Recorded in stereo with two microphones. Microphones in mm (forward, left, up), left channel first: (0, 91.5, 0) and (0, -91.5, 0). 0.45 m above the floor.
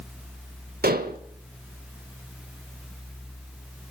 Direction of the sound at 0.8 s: 60° right (ahead or behind).